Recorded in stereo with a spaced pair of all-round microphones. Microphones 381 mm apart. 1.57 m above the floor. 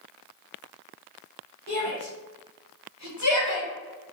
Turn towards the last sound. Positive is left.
turn(degrees=65)  # may be behind; listen again after turning